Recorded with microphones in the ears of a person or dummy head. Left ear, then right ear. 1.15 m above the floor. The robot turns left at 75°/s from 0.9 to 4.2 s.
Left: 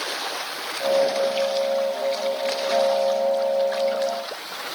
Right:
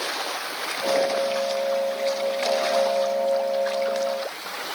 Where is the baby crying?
No baby crying in this recording.